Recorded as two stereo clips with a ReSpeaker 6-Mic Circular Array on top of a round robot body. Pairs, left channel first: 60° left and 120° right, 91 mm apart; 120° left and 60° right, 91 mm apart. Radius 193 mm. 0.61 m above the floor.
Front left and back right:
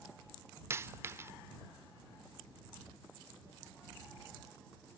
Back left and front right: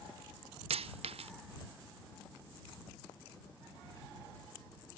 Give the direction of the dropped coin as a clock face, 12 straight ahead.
2 o'clock.